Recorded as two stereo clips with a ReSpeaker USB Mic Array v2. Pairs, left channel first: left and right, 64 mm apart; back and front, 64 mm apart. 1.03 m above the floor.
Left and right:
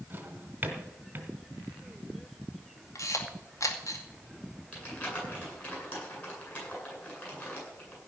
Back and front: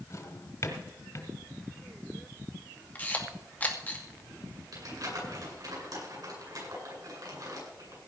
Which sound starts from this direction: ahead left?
Crumpling, at 4.7 s.